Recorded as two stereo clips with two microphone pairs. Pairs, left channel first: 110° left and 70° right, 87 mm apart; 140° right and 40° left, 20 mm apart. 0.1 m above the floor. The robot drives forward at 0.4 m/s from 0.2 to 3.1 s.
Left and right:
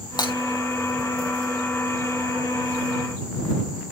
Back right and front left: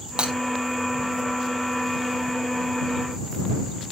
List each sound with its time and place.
0.2 s breaking glass: 75° left, 2 m; by 0.3 s 80° left, 2.0 m